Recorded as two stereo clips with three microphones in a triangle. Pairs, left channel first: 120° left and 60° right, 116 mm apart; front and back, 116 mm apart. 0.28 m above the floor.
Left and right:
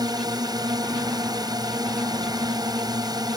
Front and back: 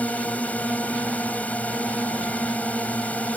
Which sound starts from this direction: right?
A drone, at 0.0 s.